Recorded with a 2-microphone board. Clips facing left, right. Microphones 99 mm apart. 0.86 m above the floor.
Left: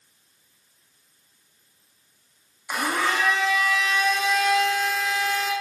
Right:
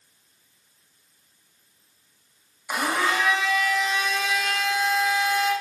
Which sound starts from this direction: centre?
A blender, at 2.7 s.